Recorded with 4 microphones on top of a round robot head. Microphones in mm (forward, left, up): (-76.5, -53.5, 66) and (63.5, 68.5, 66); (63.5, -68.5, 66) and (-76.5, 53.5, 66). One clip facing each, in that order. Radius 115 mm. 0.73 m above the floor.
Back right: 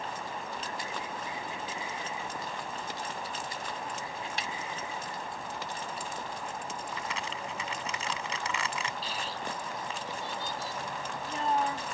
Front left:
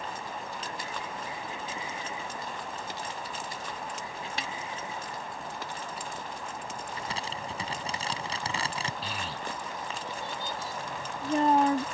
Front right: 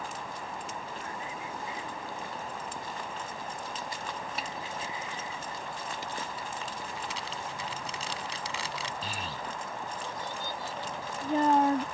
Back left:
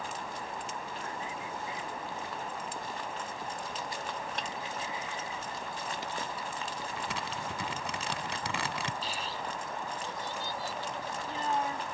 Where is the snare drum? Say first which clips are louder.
Front left 2 dB, even; 45° left.